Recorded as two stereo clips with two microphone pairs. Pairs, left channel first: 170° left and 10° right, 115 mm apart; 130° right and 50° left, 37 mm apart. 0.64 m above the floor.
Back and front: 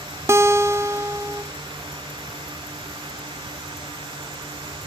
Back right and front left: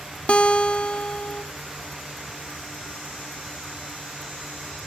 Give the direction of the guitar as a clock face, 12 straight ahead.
3 o'clock.